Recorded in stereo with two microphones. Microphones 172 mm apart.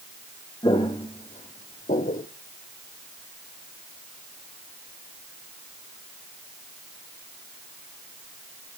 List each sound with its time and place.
0.6 s footsteps: 25° left (ahead or behind), 1.5 m; by 2.3 s 55° left (ahead or behind), 1.0 m